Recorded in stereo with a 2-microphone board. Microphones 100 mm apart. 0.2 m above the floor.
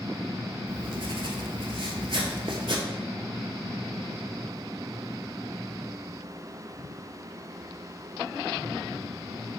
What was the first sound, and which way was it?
Writing, 60° right (ahead or behind).